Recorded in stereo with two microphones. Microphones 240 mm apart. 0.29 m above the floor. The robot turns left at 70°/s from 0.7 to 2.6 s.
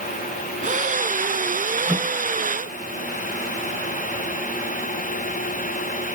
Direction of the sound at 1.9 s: 5° right (ahead or behind).